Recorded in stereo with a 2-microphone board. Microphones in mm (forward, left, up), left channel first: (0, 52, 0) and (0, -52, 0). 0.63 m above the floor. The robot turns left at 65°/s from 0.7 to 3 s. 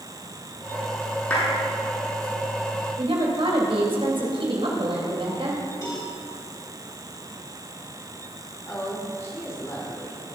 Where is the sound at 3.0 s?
55° right (ahead or behind), 3 m; by 5.6 s 60° right (ahead or behind), 3 m.